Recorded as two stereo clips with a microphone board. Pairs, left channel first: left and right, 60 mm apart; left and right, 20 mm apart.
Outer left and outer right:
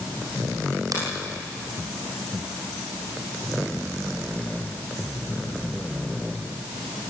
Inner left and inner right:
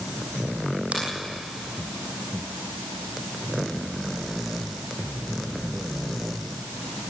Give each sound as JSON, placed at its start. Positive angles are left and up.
{"t": 0.9, "sound": "a finger snap", "side_deg": -80, "distance_m": 7.0}